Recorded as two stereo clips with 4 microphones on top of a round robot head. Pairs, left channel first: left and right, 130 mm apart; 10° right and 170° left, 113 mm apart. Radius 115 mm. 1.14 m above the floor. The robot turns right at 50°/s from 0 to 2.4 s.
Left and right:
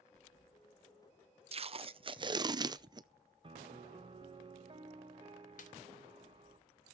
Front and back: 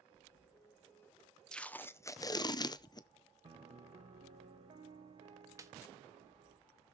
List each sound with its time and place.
1.5 s tape being pulled: 90° right, 0.6 m; by 3.1 s 45° right, 0.6 m
3.4 s a piano: 140° right, 1.0 m
5.6 s a snare drum: 105° left, 1.9 m